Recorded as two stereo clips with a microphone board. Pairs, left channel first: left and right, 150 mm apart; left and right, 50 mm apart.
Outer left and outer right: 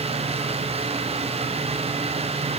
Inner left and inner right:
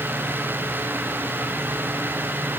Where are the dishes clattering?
I don't hear dishes clattering.